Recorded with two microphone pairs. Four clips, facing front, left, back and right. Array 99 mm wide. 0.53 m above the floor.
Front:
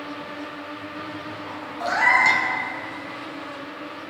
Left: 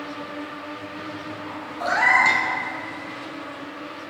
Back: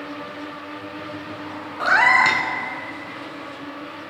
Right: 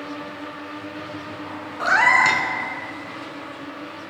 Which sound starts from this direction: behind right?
A cat meowing, at 1.8 s.